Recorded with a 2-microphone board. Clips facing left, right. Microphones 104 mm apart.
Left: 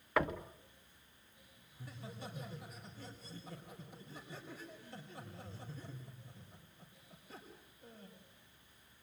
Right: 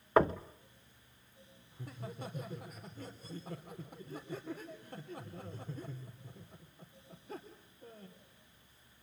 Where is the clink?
No clink in this recording.